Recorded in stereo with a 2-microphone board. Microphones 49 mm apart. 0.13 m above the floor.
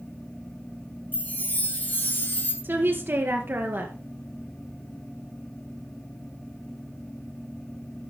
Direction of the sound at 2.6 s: 45° right (ahead or behind).